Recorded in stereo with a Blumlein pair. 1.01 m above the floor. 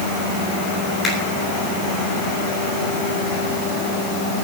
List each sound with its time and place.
1.0 s a finger snap: 15° left, 6 m